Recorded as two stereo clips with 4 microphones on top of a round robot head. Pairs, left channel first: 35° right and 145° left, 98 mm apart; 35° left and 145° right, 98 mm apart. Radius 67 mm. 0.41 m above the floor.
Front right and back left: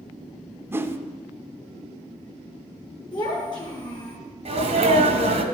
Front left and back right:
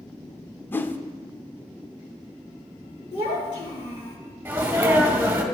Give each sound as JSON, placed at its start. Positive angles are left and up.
{"t": 0.7, "sound": "a whoosh", "azimuth_deg": 95, "distance_m": 0.8}
{"t": 3.1, "sound": "a child speaking", "azimuth_deg": 5, "distance_m": 4.5}
{"t": 4.5, "sound": "a sneeze", "azimuth_deg": 145, "distance_m": 2.0}